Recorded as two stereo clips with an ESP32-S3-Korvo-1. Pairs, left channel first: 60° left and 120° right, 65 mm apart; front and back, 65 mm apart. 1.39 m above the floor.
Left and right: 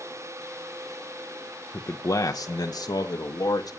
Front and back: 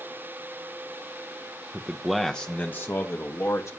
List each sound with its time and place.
1.7 s a man speaking: 105° left, 1.3 m; by 3.8 s 40° left, 3 m